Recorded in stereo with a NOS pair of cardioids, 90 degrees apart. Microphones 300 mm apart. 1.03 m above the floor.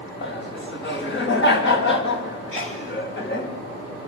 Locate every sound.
0.2 s laughter: 40° left, 6 m
2.5 s a sneeze: 45° left, 6.5 m